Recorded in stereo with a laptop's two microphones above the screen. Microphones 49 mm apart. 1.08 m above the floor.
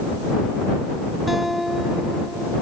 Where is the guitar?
5° right (ahead or behind).